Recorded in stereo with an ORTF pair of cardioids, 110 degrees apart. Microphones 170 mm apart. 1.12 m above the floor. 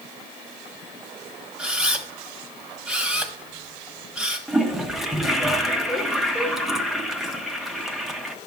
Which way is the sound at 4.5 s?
Straight ahead.